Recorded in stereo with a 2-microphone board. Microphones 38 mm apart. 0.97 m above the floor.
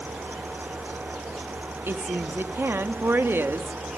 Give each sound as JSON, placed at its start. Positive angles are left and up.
{"t": 1.9, "sound": "a woman speaking", "side_deg": -80, "distance_m": 1.2}